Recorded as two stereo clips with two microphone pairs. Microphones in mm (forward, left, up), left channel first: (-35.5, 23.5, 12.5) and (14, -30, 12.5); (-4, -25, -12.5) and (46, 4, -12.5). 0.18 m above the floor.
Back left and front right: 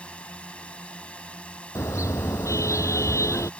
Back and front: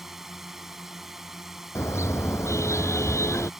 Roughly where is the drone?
Left.